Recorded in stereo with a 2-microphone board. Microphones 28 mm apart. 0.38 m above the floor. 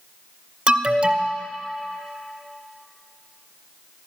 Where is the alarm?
35° right (ahead or behind), 0.6 m.